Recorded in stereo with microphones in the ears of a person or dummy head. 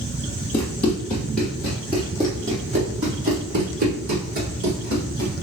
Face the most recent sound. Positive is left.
turn(degrees=-55)  # may be behind; listen again after turning